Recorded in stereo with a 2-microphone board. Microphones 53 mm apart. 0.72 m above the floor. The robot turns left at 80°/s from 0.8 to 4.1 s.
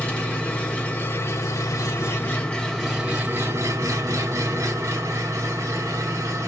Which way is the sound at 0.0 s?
150° left.